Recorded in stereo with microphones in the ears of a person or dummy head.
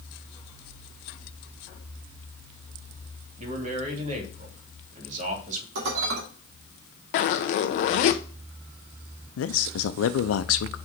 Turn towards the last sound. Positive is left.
turn(degrees=80)